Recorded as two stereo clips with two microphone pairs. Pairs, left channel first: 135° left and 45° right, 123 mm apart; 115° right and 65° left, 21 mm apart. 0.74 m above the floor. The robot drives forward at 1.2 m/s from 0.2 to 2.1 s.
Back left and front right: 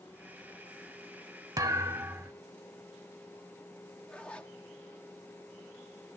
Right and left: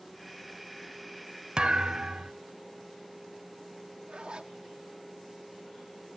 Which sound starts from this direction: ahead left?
A zipper, at 4.1 s.